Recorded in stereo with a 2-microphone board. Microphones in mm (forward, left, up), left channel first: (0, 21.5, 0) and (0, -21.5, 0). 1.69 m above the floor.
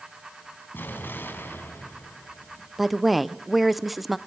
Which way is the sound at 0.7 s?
55° left (ahead or behind).